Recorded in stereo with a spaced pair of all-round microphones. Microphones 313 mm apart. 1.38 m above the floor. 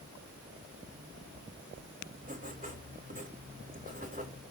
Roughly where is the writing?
Right.